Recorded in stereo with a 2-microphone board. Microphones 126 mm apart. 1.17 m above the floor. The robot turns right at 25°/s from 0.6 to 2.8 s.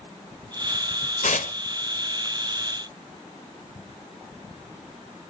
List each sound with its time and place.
1.2 s tearing paper: 90° left, 0.9 m; by 1.5 s 85° left, 0.9 m